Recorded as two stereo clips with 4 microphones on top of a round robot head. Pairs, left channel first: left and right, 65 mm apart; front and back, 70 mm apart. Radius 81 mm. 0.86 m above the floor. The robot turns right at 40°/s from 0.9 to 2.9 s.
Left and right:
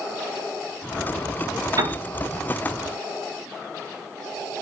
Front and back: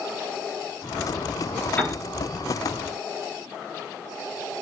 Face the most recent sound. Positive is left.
turn(degrees=-30)